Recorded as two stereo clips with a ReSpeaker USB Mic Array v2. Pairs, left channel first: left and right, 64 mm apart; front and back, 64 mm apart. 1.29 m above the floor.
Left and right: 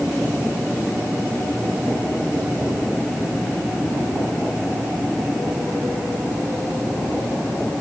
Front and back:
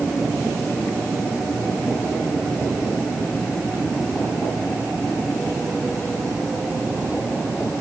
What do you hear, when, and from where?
Only background noise.